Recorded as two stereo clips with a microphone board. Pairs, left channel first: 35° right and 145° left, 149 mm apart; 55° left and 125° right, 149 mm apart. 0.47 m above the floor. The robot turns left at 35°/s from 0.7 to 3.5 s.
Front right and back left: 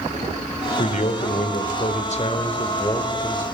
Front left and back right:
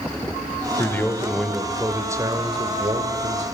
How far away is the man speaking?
About 1.6 m.